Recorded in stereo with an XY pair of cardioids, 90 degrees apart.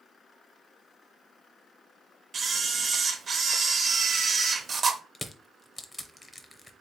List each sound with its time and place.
2.3 s a camera shutter: 45° right, 0.8 m
5.2 s crushing: 20° left, 0.7 m